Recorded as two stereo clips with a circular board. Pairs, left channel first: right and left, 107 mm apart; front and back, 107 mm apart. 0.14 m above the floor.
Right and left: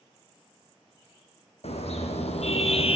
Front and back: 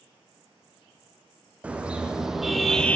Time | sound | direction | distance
1.6 | a car horn | 100° right | 3 m